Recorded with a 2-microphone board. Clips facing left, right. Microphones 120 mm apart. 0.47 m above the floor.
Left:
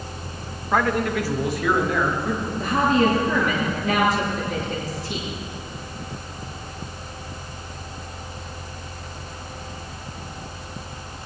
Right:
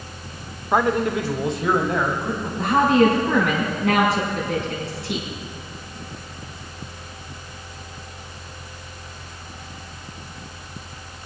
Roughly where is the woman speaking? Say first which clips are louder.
Right 4 dB; right.